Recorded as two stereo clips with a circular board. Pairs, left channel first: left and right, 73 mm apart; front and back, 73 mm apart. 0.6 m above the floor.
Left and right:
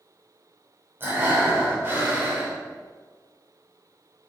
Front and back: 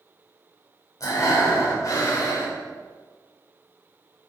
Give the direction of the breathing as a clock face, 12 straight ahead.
1 o'clock.